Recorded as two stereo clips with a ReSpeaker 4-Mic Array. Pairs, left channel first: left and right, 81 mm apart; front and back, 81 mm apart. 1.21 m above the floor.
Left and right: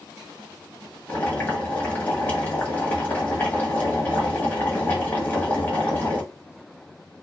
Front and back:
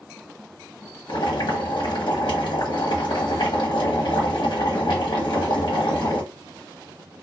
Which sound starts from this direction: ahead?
Boiling, at 1.1 s.